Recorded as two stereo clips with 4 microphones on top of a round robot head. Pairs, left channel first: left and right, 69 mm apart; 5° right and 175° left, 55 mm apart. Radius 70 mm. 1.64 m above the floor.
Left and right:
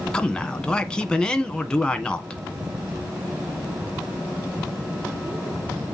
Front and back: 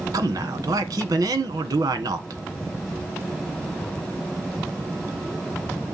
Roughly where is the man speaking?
Behind.